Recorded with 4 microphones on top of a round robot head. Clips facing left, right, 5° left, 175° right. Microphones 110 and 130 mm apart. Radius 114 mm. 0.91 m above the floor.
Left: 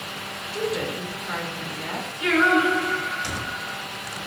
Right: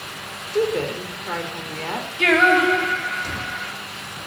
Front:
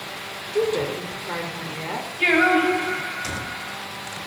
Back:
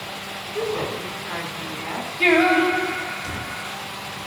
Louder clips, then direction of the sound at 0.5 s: Right 6 dB, front 3 dB; 50° right.